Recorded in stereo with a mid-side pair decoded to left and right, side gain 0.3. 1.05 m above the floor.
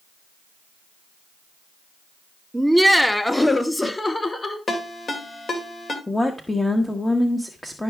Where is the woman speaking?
20° left, 1.3 m.